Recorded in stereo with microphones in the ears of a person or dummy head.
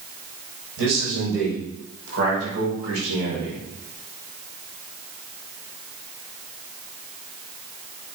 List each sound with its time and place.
0.8 s a man speaking: 85° right, 6 m; by 3.6 s 80° right, 4.5 m